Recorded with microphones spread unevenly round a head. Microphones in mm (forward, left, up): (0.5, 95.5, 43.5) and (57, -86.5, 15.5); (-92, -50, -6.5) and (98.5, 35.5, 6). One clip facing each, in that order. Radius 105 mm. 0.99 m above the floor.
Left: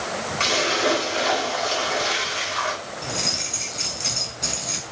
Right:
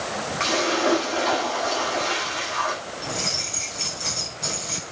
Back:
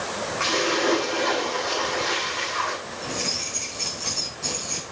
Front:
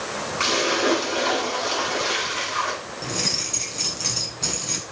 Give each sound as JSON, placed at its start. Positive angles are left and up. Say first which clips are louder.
{"t": 0.4, "sound": "a splash", "louder": "right 1 dB, front 1 dB", "azimuth_deg": 65, "distance_m": 8.5}
{"t": 3.0, "sound": "keys jangling", "louder": "even, front 2 dB", "azimuth_deg": 45, "distance_m": 6.5}